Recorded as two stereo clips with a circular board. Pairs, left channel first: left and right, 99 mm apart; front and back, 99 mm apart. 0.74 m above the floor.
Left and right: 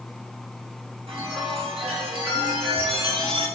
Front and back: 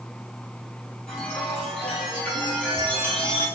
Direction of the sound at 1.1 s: 80° right.